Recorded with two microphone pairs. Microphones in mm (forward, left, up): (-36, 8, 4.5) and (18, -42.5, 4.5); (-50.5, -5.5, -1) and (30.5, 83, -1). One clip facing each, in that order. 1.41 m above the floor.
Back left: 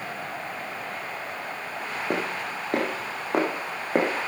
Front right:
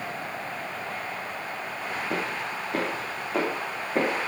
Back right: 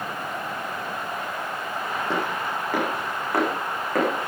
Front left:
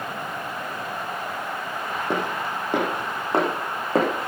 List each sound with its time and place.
2.1 s footsteps: 120° left, 3.5 m; by 4.1 s 105° left, 4.5 m